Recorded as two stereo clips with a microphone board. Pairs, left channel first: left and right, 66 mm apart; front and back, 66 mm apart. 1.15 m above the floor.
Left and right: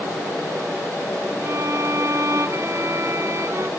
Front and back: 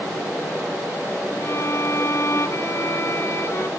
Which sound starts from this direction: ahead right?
A violin, at 1.4 s.